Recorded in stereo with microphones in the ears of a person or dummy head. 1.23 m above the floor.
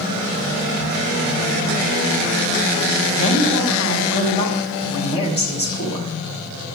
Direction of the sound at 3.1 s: 30° left (ahead or behind).